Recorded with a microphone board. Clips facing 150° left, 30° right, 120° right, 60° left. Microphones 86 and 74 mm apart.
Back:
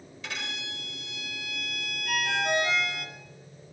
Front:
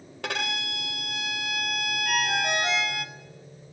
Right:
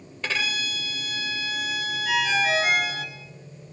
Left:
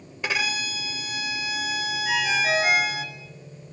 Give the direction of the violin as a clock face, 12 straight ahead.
1 o'clock.